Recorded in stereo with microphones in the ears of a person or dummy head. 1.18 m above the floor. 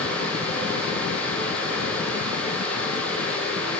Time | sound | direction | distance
0.0 | a fan | 5° left (ahead or behind) | 2.5 m